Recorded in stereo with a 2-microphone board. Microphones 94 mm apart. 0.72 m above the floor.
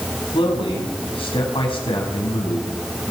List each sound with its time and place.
0.3 s a man speaking: 75° left (ahead or behind), 4.5 m